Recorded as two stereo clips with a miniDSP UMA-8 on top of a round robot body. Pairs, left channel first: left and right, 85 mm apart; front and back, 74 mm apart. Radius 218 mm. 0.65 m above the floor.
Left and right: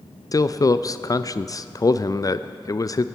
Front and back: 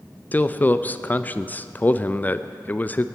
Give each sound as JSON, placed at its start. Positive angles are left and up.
{"t": 0.3, "sound": "a man speaking", "azimuth_deg": 60, "distance_m": 0.6}